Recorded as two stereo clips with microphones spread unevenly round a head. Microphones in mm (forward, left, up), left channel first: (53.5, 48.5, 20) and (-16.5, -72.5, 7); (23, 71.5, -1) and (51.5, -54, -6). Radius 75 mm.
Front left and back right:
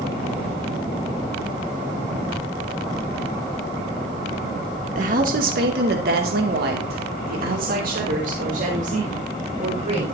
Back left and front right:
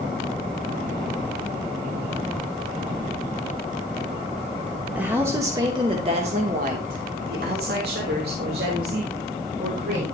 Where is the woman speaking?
155° right, 3 m; by 10.2 s 75° right, 5.5 m.